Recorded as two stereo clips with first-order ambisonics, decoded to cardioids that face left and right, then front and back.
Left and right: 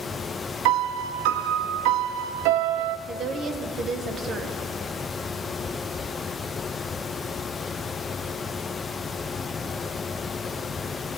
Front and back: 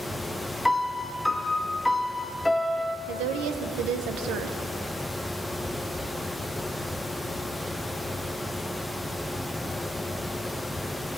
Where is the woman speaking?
150° right, 1.0 m.